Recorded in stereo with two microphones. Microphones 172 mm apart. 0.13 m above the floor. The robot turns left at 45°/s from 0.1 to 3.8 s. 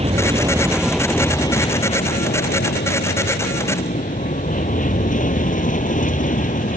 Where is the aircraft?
140° right; by 6.8 s 50° left.